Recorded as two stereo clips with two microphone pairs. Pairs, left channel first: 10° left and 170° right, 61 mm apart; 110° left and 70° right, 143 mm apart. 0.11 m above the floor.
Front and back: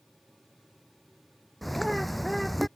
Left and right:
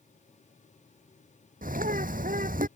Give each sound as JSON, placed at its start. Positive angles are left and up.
{"t": 1.6, "sound": "a bird", "azimuth_deg": -75}